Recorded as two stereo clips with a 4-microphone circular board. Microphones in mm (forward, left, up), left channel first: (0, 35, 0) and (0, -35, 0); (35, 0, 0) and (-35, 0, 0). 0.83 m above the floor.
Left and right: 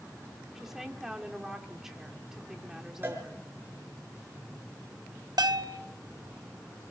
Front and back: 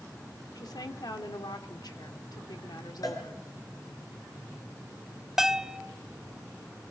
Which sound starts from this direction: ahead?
A woman speaking, at 0.6 s.